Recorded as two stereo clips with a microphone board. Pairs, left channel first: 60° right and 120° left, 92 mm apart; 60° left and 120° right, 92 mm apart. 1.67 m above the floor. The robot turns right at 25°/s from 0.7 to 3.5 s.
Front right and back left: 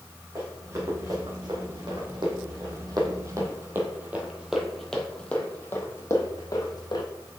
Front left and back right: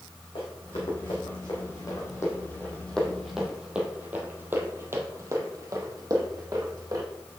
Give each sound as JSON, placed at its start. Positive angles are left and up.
{"t": 0.3, "sound": "running footsteps", "azimuth_deg": 65, "distance_m": 4.5}